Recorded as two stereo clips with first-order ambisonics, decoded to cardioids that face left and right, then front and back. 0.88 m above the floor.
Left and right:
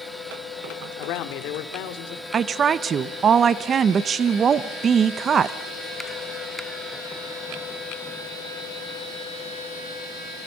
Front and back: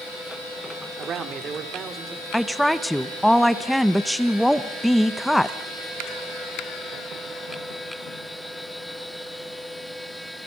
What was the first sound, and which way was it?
A man speaking, 125° left.